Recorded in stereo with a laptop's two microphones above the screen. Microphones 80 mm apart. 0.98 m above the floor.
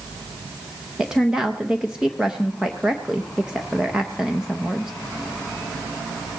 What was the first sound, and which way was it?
A woman speaking, 10° right (ahead or behind).